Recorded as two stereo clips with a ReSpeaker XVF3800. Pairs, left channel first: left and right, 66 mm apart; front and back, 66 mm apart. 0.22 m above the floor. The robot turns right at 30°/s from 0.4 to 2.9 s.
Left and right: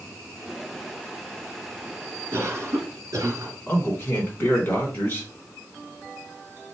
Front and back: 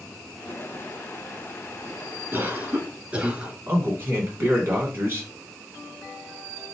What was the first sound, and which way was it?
A cough, 135° right.